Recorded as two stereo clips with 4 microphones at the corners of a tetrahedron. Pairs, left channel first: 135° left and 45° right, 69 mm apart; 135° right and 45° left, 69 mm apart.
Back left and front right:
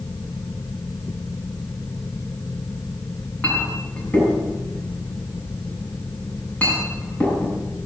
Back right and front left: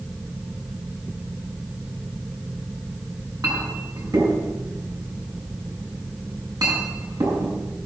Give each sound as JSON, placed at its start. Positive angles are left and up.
{"t": 3.4, "sound": "a clink", "azimuth_deg": 70, "distance_m": 6.5}